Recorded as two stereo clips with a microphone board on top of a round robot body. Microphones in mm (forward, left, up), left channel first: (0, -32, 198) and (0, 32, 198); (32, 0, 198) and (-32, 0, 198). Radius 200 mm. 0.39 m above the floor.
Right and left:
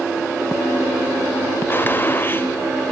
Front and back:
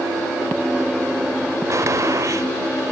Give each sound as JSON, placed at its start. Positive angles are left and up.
{"t": 1.7, "sound": "a gunshot", "azimuth_deg": -145}